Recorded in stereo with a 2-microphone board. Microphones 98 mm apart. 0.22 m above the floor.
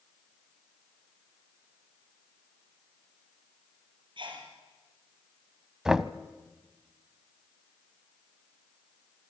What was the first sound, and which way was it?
A sneeze, 55° right (ahead or behind).